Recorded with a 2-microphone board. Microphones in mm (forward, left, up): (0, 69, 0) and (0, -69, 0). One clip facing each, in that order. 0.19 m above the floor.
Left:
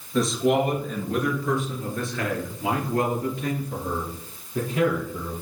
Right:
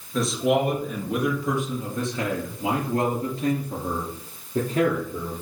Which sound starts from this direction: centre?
A man speaking, at 0.1 s.